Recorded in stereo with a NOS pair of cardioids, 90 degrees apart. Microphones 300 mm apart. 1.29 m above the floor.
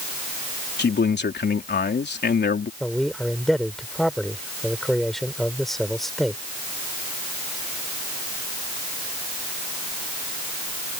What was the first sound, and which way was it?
A man speaking, 35° left.